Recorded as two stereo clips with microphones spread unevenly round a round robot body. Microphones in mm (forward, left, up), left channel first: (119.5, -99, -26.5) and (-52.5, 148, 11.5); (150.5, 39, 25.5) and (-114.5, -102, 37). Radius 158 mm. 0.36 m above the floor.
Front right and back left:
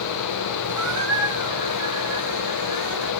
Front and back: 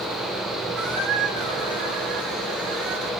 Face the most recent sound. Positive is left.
turn(degrees=150)